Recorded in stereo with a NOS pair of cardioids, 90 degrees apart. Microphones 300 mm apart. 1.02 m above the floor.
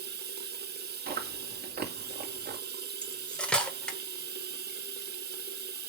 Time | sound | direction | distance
0.0 | running water | 35° right | 1.1 m
1.1 | chewing | 35° right | 2 m
3.0 | cutlery clinking | 5° left | 1.9 m